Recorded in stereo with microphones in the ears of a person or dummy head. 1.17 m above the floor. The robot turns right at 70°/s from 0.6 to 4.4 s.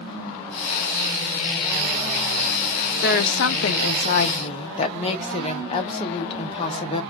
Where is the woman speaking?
50° left, 0.5 m; by 7.0 s 145° left, 0.5 m.